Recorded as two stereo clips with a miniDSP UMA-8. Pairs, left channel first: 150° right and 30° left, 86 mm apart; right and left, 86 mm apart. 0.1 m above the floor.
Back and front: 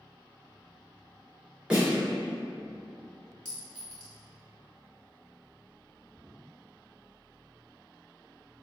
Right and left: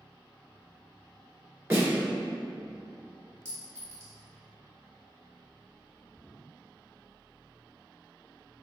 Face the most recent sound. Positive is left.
turn(degrees=140)